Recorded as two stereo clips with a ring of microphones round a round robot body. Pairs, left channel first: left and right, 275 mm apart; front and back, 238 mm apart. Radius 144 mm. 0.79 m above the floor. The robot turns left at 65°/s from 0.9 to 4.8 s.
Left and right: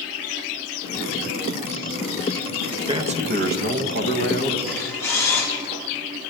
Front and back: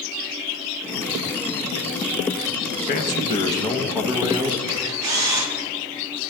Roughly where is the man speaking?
Ahead.